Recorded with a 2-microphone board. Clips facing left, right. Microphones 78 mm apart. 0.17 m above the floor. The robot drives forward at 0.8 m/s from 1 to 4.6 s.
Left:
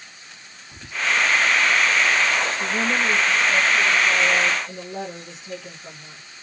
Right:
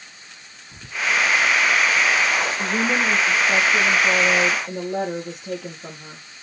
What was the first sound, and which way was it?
Whispering, 5° left (ahead or behind).